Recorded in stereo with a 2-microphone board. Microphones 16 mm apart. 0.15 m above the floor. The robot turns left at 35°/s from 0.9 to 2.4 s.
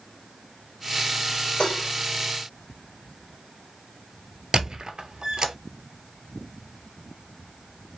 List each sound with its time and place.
1.6 s dishes clattering: 60° left (ahead or behind), 1.7 m
4.5 s a squeak: 50° right (ahead or behind), 0.7 m